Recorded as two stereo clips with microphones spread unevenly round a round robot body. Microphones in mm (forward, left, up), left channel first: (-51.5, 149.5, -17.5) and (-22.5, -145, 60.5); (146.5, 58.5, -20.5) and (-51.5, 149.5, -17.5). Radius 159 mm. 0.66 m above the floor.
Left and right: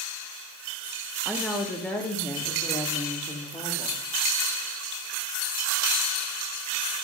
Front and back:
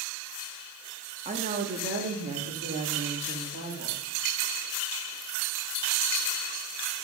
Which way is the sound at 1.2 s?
155° left.